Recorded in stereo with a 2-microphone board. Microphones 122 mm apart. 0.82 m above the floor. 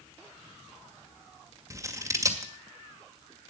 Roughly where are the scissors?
Right.